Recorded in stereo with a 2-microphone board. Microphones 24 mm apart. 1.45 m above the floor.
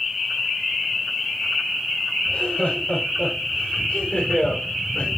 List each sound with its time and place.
2.2 s laughter: 65° left (ahead or behind), 6.5 m; by 5.1 s 75° left (ahead or behind), 5.5 m